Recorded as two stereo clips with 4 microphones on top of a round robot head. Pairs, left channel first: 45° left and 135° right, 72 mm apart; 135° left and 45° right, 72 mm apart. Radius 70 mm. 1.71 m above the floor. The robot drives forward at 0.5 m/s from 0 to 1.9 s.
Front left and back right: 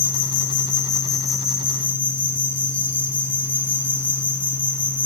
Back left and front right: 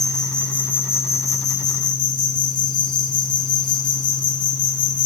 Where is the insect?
50° left, 1.0 m; by 5.1 s 115° left, 0.9 m.